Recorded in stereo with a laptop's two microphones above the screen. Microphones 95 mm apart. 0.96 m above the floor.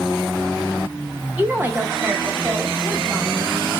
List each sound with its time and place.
1.4 s a woman speaking: 15° right (ahead or behind), 0.6 m; by 3.4 s 20° right (ahead or behind), 1.2 m